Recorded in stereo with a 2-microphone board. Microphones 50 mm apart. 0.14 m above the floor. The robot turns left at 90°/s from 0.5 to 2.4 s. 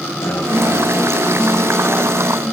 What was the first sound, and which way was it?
A guitar, 100° left.